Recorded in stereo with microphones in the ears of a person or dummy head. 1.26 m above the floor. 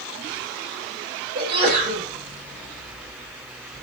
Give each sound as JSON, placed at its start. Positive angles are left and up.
{"t": 1.4, "sound": "a sneeze", "side_deg": -55, "distance_m": 1.6}